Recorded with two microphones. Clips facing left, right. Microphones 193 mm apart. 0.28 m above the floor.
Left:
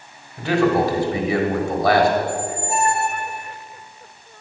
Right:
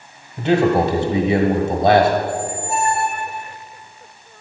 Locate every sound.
0.4 s a man speaking: 20° right (ahead or behind), 1.1 m
2.2 s a squeak: 30° right (ahead or behind), 0.7 m